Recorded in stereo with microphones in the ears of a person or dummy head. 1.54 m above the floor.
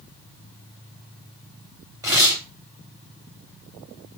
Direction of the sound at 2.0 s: 15° right (ahead or behind).